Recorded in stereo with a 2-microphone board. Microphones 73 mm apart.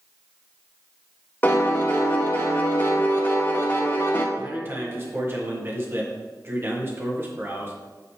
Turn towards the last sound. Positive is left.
turn(degrees=-35)  # may be behind; listen again after turning